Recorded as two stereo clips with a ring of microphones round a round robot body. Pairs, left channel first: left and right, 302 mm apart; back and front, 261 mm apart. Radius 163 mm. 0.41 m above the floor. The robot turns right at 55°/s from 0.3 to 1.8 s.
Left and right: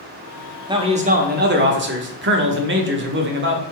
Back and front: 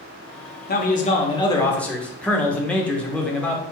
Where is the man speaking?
160° right, 0.9 m; by 3.6 s 95° right, 0.9 m.